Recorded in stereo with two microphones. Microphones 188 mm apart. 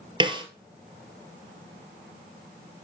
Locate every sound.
0.2 s a snare drum: 25° right (ahead or behind), 1.6 m